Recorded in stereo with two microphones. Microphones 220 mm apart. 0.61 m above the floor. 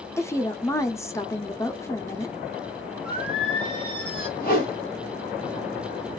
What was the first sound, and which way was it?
A woman speaking, 10° left (ahead or behind).